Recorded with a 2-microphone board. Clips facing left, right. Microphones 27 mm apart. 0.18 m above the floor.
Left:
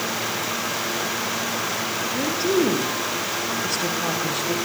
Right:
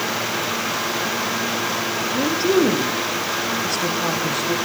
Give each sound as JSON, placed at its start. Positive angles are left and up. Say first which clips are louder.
{"t": 2.1, "sound": "a woman speaking", "louder": "right 3 dB", "side_deg": -15, "distance_m": 6.0}